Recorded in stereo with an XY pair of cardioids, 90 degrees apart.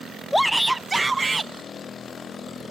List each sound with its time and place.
0.3 s a shout: 5° left; by 1.5 s 30° right